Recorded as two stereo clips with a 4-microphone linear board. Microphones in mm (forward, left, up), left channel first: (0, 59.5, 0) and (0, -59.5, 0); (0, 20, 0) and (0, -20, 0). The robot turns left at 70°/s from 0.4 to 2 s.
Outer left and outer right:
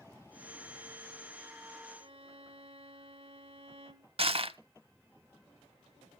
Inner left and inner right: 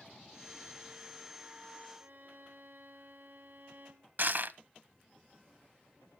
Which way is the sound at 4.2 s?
55° right (ahead or behind).